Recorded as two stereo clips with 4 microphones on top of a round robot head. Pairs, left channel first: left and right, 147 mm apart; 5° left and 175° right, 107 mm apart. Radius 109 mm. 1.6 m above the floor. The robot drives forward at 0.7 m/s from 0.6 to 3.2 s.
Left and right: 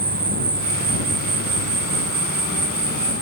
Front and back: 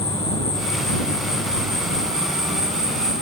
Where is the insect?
65° right, 1.5 m; by 3.2 s 130° right, 1.9 m.